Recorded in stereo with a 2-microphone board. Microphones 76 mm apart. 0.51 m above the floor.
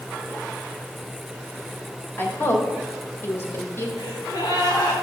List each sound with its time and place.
2.2 s a woman speaking: 30° left (ahead or behind), 2 m
4.0 s a gasp: 75° left (ahead or behind), 4.5 m